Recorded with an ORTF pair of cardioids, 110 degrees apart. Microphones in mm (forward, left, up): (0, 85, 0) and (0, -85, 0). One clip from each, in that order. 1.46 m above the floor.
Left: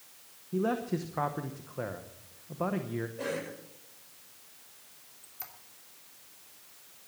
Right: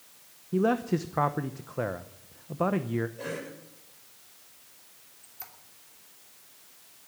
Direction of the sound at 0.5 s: 25° right.